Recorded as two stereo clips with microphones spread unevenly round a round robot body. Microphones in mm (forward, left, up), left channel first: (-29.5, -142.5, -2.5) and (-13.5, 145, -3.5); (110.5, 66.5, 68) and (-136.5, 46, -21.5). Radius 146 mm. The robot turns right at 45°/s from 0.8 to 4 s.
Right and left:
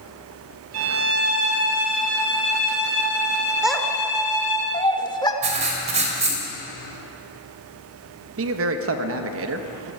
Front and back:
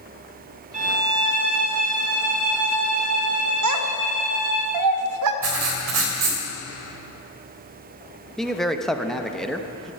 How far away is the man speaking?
About 1.0 m.